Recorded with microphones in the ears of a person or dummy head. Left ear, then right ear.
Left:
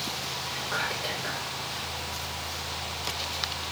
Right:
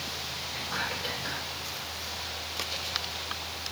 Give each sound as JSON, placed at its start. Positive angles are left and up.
{"t": 0.5, "sound": "whispering", "side_deg": 45, "distance_m": 1.6}